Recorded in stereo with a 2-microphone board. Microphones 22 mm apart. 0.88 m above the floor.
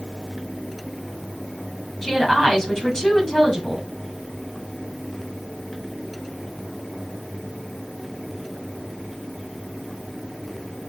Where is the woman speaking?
25° left (ahead or behind), 7 m.